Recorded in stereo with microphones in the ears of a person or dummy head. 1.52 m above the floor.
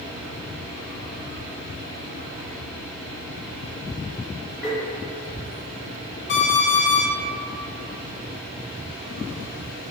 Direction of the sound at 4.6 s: Centre (ahead or behind).